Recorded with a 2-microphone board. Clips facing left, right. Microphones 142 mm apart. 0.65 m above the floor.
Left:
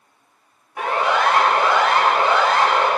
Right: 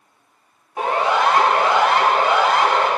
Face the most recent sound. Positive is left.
turn(degrees=-10)  # may be behind; listen again after turning